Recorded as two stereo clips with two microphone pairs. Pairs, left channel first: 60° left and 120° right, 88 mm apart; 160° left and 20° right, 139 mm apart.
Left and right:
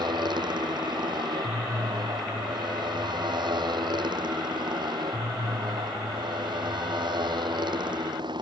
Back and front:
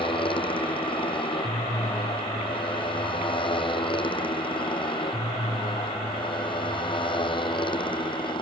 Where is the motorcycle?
150° right.